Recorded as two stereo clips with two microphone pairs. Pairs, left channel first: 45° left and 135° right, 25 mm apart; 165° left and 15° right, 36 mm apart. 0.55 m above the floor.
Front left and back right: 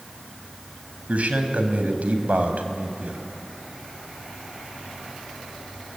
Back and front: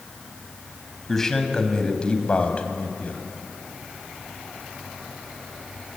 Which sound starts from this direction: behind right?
A man speaking, at 1.1 s.